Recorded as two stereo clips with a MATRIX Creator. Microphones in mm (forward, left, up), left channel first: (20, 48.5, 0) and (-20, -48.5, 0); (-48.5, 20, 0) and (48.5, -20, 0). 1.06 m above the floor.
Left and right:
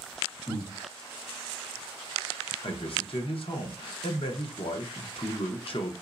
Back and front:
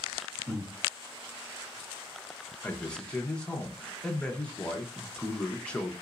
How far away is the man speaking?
About 0.8 m.